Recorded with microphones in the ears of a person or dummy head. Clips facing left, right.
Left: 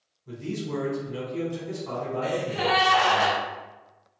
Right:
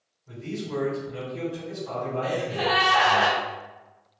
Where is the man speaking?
60° left (ahead or behind), 1.7 m.